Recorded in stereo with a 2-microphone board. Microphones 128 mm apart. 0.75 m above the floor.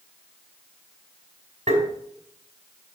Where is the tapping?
65° right (ahead or behind), 4.5 m.